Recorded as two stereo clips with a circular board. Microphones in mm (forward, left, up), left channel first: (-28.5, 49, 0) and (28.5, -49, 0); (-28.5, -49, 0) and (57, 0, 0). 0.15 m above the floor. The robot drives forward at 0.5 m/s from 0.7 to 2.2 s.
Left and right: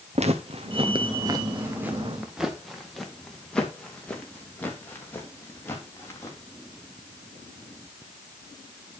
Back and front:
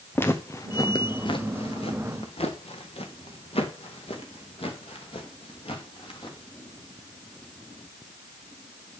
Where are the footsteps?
80° right, 1.8 m; by 6.4 s 170° right, 4.5 m.